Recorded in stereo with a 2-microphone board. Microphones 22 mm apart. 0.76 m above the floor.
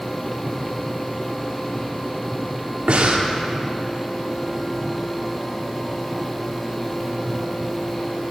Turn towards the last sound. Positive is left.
turn(degrees=-75)  # may be behind; listen again after turning